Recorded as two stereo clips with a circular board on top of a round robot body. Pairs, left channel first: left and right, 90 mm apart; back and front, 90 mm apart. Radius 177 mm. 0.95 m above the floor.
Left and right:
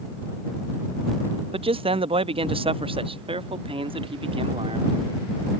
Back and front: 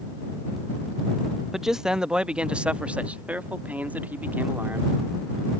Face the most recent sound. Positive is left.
turn(degrees=-70)